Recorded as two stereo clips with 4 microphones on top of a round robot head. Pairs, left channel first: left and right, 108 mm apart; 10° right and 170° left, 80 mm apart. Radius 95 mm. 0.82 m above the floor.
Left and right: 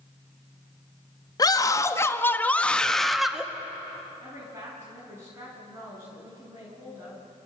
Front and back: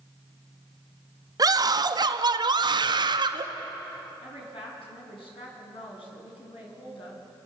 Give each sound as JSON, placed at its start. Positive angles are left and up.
{"t": 1.4, "sound": "a scream", "azimuth_deg": 140, "distance_m": 1.6}
{"t": 4.2, "sound": "a woman speaking", "azimuth_deg": -20, "distance_m": 7.0}